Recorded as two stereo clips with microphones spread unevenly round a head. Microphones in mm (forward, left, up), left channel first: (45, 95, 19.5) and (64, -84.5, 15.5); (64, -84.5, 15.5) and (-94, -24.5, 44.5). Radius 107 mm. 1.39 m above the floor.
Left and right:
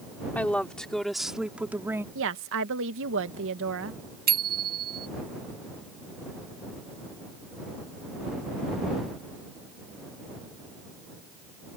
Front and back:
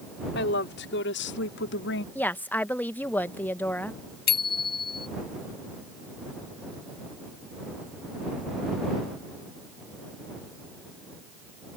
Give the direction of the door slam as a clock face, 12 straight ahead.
No door slam in this recording.